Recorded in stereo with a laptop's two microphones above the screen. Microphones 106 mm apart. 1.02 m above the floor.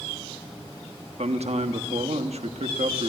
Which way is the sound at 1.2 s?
85° right.